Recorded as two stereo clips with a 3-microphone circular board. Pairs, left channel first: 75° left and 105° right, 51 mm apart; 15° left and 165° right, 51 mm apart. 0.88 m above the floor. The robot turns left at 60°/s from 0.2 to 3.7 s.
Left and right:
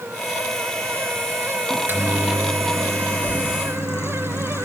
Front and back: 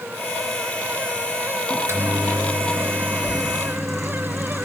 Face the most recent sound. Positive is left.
turn(degrees=100)